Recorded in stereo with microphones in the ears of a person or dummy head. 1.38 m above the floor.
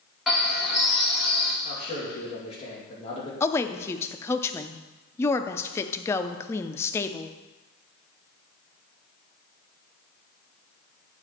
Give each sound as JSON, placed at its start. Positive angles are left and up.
{"t": 0.3, "sound": "a bird", "side_deg": 0, "distance_m": 1.4}
{"t": 1.6, "sound": "a man speaking", "side_deg": 35, "distance_m": 2.5}
{"t": 3.4, "sound": "a woman speaking", "side_deg": 10, "distance_m": 0.5}